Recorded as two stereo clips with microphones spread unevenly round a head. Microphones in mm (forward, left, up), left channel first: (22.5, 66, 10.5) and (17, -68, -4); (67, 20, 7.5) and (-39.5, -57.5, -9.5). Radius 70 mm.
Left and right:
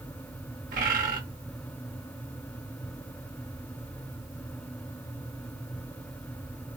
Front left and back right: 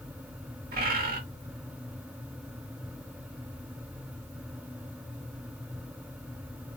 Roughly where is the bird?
Behind right.